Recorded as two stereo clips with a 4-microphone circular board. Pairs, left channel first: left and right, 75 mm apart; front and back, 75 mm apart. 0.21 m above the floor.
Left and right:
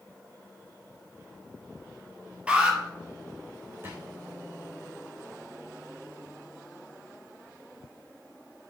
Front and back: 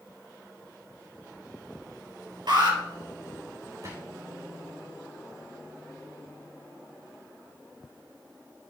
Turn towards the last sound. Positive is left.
turn(degrees=-145)